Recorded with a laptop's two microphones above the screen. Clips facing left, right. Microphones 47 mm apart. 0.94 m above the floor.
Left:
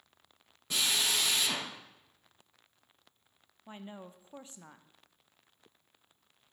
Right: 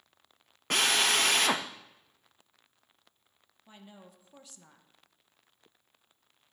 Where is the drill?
60° right (ahead or behind), 0.6 m.